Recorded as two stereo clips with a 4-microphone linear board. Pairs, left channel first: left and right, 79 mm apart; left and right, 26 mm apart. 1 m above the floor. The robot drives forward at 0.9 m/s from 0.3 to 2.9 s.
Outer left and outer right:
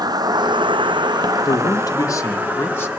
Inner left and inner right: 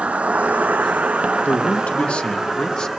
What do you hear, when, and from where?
0.0 s an insect: 55° right (ahead or behind), 0.8 m; by 3.0 s 20° right (ahead or behind), 2 m
1.4 s a man speaking: 60° left (ahead or behind), 0.9 m; by 2.9 s 25° left (ahead or behind), 1.6 m